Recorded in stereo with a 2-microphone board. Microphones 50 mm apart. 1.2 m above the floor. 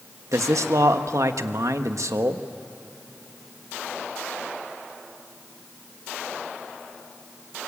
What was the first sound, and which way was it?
A man speaking, 85° right.